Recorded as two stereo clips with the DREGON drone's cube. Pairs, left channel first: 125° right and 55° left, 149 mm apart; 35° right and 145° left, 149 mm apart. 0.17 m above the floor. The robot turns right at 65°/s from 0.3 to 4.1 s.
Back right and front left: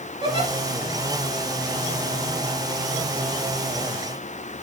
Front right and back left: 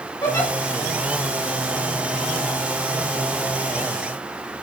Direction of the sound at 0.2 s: 20° left.